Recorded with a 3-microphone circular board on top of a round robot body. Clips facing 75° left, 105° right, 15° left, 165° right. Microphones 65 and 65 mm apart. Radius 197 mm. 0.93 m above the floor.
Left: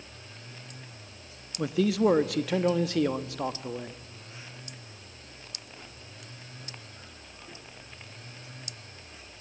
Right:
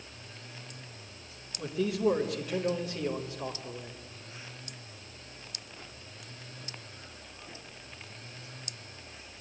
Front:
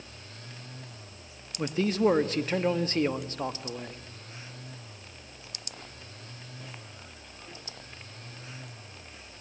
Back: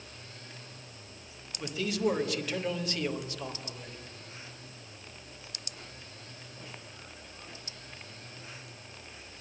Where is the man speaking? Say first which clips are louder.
Left 5 dB, front 5 dB; 70° left, 1.6 m.